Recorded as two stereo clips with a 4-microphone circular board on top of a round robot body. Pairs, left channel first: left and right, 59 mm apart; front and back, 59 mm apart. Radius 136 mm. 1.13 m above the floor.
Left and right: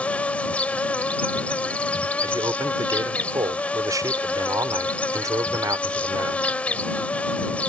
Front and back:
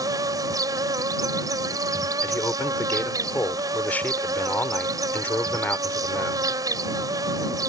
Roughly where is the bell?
No bell in this recording.